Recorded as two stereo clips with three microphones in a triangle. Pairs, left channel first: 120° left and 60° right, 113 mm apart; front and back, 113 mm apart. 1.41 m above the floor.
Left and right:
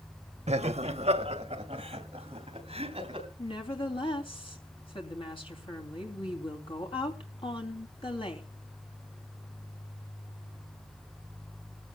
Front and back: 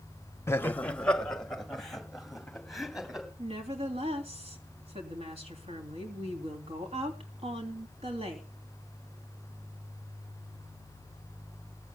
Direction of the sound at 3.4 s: 155° left.